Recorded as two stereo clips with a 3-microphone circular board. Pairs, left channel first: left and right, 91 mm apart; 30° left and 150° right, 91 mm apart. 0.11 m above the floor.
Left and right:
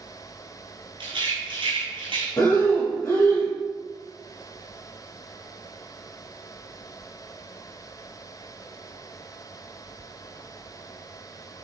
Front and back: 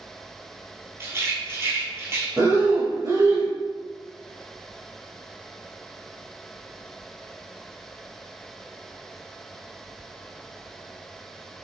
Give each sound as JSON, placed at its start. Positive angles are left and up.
{"t": 1.0, "sound": "a rattle", "azimuth_deg": -90, "distance_m": 1.5}
{"t": 2.4, "sound": "breathing", "azimuth_deg": 150, "distance_m": 1.2}